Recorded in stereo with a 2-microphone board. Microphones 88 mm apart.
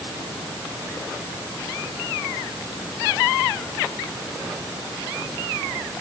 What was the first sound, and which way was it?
Only background noise.